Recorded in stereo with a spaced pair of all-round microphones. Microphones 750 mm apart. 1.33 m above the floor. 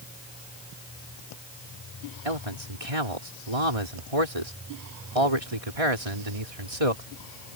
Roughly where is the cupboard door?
I don't hear a cupboard door.